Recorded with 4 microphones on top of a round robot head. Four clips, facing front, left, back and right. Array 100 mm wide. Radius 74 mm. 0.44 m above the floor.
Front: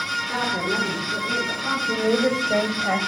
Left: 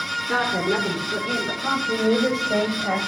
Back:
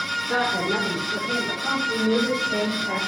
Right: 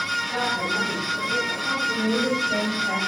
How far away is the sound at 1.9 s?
About 2.5 m.